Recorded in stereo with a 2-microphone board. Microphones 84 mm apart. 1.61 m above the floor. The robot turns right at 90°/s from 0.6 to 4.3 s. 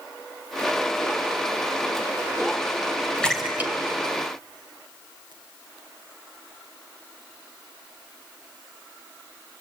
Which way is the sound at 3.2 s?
10° left (ahead or behind).